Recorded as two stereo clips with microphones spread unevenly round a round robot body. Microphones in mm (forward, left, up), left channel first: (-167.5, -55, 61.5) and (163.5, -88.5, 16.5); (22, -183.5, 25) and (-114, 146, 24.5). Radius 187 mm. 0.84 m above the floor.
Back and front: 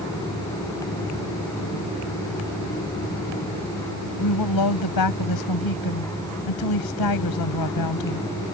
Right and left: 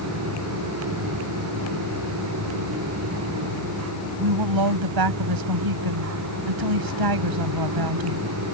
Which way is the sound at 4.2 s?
135° left.